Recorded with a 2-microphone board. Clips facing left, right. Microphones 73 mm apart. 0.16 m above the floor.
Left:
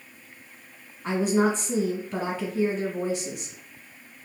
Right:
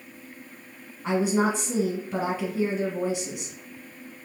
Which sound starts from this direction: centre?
A woman speaking, at 1.0 s.